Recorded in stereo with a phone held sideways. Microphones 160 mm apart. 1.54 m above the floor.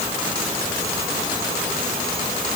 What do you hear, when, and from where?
Only background noise.